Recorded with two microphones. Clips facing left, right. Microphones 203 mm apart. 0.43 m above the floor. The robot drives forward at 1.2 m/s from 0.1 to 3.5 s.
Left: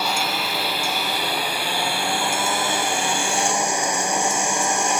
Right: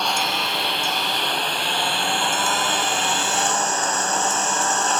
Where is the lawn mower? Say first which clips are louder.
Even; 5° left (ahead or behind); by 5.0 s 10° left (ahead or behind).